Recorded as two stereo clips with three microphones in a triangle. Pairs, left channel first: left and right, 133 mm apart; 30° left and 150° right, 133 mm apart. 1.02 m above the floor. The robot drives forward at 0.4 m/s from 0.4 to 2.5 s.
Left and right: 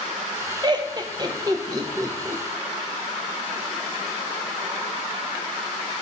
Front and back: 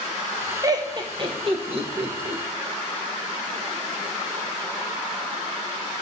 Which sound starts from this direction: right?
Laughter, at 0.6 s.